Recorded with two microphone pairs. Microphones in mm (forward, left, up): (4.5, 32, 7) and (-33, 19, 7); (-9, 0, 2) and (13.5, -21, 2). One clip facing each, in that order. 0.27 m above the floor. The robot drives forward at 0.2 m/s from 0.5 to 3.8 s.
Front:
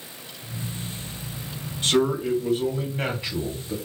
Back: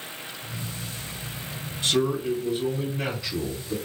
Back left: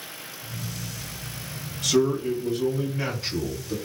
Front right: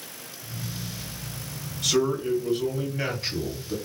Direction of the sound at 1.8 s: 40° left.